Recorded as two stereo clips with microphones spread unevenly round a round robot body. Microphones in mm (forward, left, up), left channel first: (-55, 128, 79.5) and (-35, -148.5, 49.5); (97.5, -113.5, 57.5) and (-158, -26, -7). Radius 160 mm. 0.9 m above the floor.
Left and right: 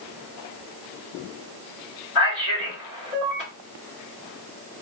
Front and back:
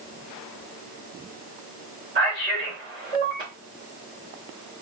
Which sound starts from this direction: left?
A man speaking, at 2.1 s.